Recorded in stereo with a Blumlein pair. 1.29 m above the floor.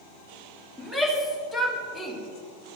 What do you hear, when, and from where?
0.8 s a shout: 5° left, 2.5 m